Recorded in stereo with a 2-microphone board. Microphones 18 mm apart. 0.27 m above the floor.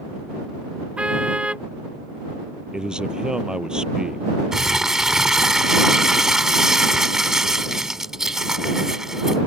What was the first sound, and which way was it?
A car horn, 80° right.